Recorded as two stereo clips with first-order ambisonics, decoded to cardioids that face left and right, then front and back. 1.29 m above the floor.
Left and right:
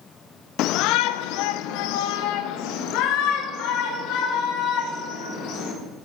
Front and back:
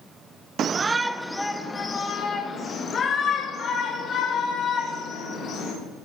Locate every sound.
0.6 s a shout: 125° left, 0.6 m; by 5.7 s 60° left, 4 m